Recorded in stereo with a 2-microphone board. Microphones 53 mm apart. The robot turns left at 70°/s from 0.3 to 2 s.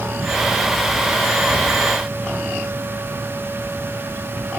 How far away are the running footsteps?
I don't hear running footsteps.